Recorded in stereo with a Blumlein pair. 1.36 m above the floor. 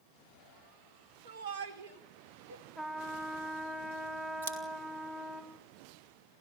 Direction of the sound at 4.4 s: 60° right.